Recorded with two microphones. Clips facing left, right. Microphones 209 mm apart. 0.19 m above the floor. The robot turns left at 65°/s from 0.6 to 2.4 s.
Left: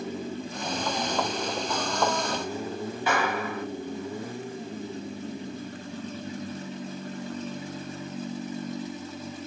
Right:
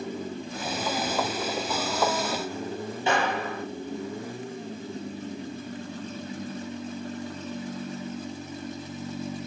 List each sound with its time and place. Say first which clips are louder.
3.1 s a clap: right 2 dB; 25° right (ahead or behind), 4 m